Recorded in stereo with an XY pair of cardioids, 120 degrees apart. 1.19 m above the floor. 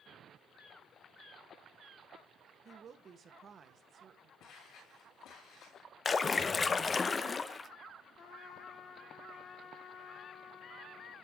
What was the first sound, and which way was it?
A woman speaking, 45° right.